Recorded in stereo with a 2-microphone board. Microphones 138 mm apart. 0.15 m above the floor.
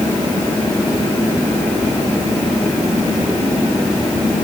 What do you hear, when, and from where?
Only background noise.